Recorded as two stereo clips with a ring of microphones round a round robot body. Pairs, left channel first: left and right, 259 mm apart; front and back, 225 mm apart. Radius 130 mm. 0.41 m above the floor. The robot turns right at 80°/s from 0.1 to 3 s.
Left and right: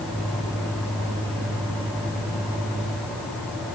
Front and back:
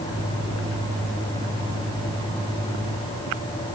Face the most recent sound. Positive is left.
No sound to turn to.